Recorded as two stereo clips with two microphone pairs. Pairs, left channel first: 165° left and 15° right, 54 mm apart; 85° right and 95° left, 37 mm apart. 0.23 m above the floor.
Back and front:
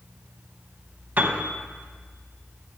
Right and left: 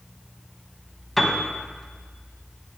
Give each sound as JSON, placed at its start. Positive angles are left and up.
{"t": 1.2, "sound": "a piano", "azimuth_deg": 5, "distance_m": 1.1}